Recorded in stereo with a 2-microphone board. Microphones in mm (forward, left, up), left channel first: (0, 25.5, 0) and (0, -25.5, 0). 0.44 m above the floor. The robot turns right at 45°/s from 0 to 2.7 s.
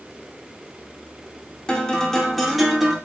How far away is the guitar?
About 0.8 m.